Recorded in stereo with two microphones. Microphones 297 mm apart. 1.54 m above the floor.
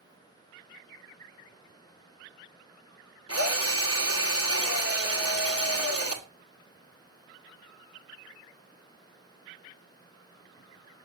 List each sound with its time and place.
3.3 s a drill: 50° left (ahead or behind), 2 m